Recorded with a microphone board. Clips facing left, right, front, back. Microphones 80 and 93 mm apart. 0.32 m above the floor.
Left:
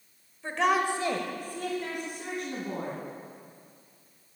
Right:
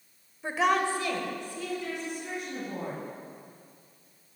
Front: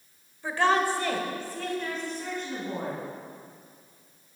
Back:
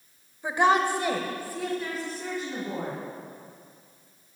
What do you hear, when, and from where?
0.4 s a woman speaking: 130° right, 1.1 m; by 3.0 s 95° left, 3.5 m